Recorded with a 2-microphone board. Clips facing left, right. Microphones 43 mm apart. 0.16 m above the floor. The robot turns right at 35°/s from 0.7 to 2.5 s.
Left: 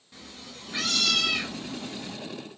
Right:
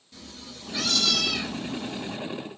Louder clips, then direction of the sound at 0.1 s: Right 1 dB; 35° left.